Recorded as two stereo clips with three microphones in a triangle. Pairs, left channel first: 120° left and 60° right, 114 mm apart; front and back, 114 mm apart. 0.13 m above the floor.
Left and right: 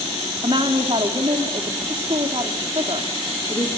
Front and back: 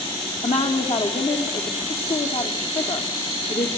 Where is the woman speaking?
5° right, 3.5 m.